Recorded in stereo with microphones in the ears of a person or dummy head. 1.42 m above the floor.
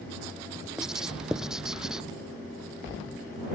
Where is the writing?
5° right (ahead or behind).